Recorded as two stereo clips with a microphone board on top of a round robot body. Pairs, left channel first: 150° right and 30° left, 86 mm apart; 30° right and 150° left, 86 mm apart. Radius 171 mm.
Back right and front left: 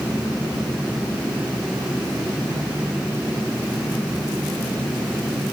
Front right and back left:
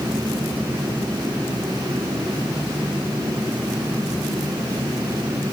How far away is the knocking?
I don't hear knocking.